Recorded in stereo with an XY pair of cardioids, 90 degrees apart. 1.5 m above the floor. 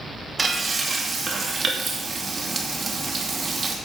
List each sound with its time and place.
0.4 s frying: 35° right, 2.5 m